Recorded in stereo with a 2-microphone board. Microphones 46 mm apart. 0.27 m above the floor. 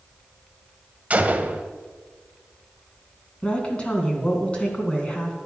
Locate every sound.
1.1 s a gunshot: 30° right (ahead or behind), 1.0 m
3.4 s a woman speaking: 25° left (ahead or behind), 3 m